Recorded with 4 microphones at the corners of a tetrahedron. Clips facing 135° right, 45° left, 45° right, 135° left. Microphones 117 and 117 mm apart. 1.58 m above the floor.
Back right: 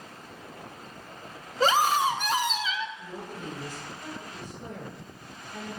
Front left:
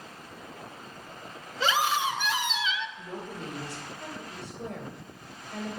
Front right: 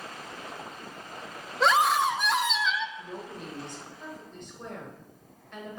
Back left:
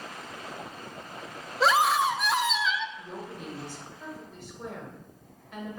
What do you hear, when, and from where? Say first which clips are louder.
1.6 s a scream: back right 4 dB, even; 135° right, 0.6 m
3.0 s a woman speaking: front left 1 dB, even; 50° left, 1.8 m